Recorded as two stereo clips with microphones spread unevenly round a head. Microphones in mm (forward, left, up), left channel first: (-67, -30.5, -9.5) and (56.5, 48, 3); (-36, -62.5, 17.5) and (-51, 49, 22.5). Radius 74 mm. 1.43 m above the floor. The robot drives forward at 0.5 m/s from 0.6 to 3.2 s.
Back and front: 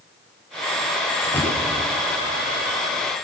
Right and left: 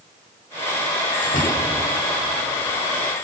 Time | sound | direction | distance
1.2 | a door slam | 70° right | 7 m